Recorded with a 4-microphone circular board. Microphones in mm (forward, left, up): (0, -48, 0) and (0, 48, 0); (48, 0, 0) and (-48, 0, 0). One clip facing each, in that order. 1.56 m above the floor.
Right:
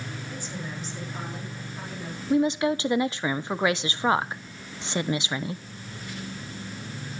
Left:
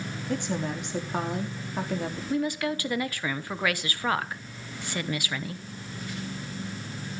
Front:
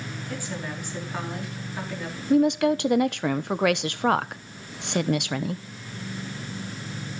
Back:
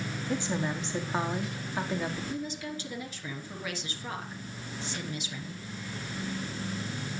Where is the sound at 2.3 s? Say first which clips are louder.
Right 6 dB, front 16 dB; 20° right, 1.1 m.